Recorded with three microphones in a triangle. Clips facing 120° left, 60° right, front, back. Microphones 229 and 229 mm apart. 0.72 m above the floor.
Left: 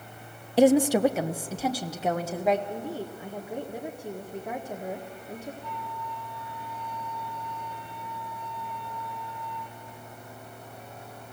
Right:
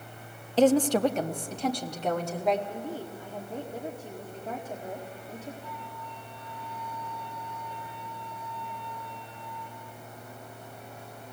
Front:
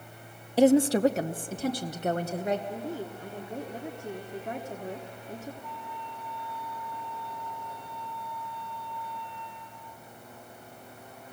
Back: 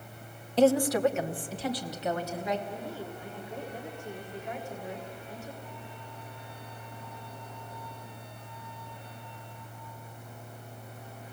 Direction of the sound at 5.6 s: 45° left.